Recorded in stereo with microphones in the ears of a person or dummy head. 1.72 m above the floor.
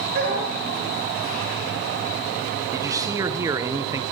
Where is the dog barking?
60° right (ahead or behind), 9 m.